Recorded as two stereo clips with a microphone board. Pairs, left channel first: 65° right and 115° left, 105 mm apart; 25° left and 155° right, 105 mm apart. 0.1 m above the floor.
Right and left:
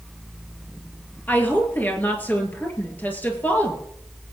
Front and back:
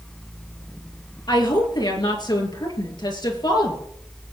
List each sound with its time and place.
1.3 s a woman speaking: straight ahead, 2 m